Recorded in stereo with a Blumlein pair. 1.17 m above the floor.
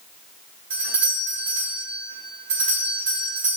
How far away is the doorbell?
About 4 m.